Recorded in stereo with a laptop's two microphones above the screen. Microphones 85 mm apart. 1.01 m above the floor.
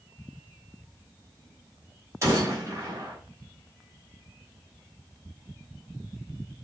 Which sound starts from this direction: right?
A gunshot, at 2.2 s.